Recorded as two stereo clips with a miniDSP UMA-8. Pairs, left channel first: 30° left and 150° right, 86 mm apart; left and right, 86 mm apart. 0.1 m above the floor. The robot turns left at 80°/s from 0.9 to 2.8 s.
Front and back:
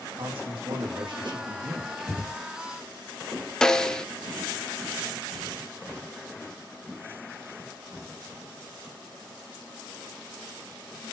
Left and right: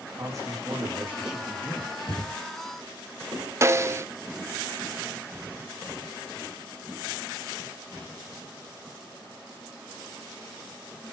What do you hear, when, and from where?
0.2 s a man speaking: 140° right, 7 m; by 1.9 s 140° left, 7 m
2.0 s breathing: 130° left, 8 m; by 2.3 s 100° left, 8 m
3.6 s a snare drum: 50° right, 0.8 m